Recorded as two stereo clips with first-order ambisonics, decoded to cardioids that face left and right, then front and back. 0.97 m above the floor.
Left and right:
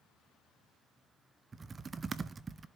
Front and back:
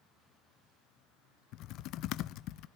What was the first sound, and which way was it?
Typing on a keyboard, 20° right.